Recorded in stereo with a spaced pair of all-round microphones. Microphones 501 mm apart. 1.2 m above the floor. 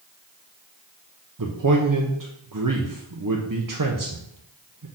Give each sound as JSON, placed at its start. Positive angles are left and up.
{"t": 1.4, "sound": "a man speaking", "side_deg": -40, "distance_m": 0.7}